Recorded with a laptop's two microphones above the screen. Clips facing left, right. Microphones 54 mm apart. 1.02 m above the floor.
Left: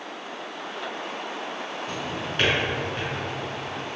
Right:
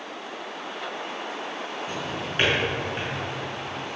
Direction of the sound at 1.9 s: 15° right (ahead or behind).